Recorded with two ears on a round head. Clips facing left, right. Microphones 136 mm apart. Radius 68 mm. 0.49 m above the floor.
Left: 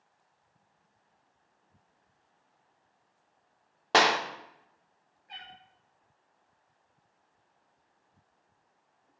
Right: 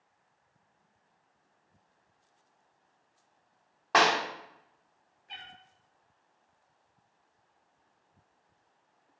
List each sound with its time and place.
3.9 s a clap: 35° left (ahead or behind), 0.7 m
5.3 s a cat meowing: 30° right (ahead or behind), 1.8 m